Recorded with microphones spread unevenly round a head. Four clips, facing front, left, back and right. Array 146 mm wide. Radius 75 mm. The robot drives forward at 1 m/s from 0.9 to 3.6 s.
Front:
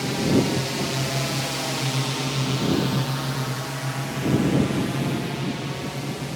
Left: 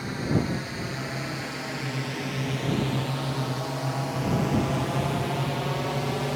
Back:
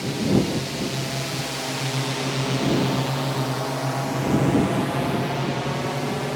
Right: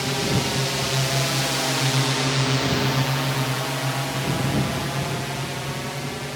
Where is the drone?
60° right; by 6.4 s 155° left.